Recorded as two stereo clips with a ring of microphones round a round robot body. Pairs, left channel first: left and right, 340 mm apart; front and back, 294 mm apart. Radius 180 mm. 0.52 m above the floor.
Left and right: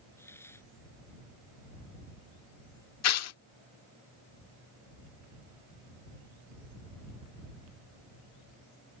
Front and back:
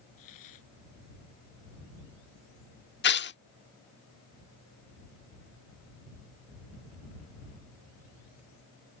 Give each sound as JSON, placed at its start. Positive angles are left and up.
{"t": 0.2, "sound": "a hiss", "azimuth_deg": 5}
{"t": 3.0, "sound": "tearing paper", "azimuth_deg": 50}